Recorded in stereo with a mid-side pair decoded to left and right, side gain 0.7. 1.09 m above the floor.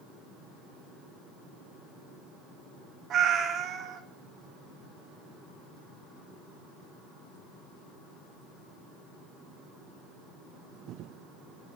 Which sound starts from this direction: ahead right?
A cat meowing, at 3.1 s.